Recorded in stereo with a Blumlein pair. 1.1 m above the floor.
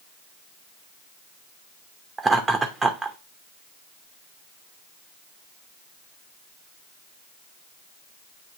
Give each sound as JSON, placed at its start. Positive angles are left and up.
{"t": 2.2, "sound": "laughter", "azimuth_deg": -10, "distance_m": 0.8}